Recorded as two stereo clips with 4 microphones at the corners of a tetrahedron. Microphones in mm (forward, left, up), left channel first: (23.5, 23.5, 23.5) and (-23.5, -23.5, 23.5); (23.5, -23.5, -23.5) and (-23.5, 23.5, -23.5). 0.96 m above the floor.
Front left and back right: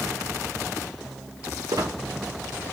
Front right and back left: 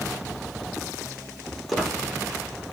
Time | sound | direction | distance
1.7 | a squeak | 135° right | 0.9 m